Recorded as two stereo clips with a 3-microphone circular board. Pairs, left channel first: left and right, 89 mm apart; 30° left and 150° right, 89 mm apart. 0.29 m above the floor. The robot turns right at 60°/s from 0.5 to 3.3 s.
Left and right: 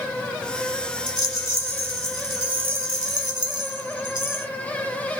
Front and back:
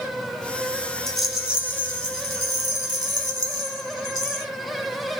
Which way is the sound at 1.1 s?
115° left.